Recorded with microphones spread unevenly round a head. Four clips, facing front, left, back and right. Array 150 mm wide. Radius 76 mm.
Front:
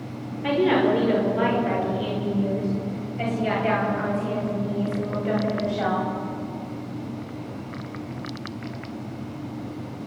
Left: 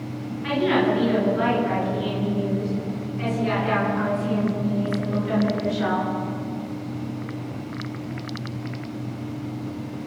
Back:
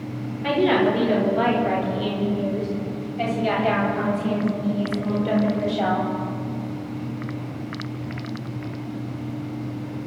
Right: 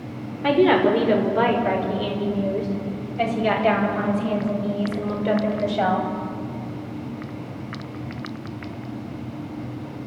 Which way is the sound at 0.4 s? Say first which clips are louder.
Right 4 dB, back 1 dB; 90° right.